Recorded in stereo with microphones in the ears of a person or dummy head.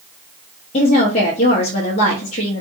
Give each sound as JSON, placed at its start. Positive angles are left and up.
{"t": 0.7, "sound": "a woman speaking", "side_deg": 35, "distance_m": 0.8}